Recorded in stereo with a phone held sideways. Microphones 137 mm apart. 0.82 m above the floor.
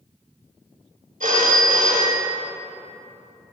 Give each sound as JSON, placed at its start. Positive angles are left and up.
{"t": 1.2, "sound": "a phone ringing", "side_deg": -75, "distance_m": 1.0}